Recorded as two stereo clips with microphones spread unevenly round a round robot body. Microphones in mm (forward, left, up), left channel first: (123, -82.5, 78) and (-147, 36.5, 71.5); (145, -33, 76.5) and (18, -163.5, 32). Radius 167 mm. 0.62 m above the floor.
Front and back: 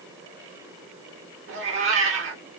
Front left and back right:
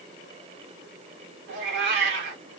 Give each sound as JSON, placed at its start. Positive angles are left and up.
{"t": 1.5, "sound": "a cat meowing", "azimuth_deg": -150, "distance_m": 1.0}